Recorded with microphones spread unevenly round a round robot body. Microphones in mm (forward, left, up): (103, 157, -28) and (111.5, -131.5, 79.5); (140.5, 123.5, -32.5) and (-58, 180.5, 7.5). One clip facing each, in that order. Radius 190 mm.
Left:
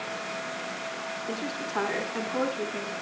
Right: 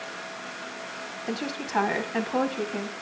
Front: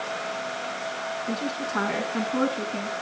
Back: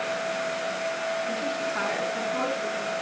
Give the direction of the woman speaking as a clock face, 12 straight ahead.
2 o'clock.